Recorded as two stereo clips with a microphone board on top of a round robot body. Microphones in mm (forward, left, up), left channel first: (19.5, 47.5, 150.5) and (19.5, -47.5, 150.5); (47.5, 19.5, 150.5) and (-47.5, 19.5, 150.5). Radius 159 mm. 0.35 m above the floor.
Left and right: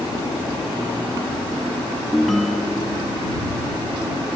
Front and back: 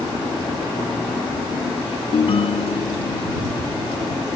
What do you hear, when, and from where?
2.1 s a ringtone: straight ahead